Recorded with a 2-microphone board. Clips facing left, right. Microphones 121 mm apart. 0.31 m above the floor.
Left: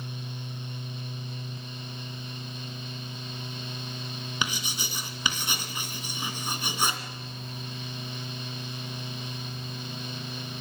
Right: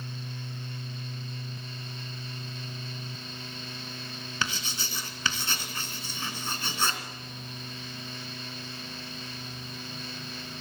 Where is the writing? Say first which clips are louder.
Even; 15° left (ahead or behind), 2.5 m.